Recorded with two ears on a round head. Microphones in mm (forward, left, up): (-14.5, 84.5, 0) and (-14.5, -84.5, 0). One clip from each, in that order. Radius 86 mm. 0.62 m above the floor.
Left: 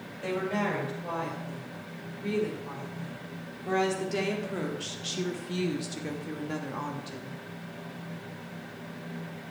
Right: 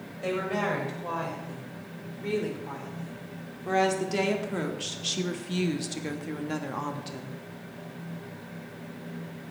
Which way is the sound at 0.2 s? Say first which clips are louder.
Right 2 dB; 10° right (ahead or behind).